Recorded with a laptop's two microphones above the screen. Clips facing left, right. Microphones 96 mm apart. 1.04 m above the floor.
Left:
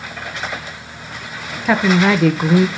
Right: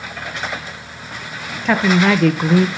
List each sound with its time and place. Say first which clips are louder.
1.6 s a woman speaking: even; 5° left (ahead or behind), 0.7 m